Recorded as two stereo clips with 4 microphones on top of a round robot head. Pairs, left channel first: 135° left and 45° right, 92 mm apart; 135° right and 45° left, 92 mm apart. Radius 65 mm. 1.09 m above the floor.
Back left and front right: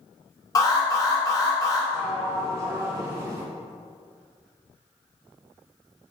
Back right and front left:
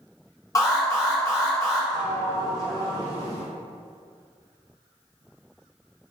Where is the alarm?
Straight behind, 1.2 m.